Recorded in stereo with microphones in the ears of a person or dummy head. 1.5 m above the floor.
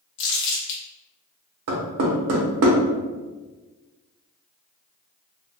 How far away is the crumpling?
About 0.9 m.